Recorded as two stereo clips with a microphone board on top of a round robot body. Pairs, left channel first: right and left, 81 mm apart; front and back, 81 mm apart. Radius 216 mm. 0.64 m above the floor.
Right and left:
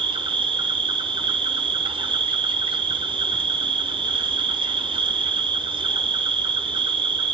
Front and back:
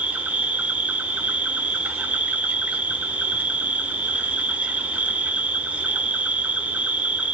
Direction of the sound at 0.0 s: 105° left.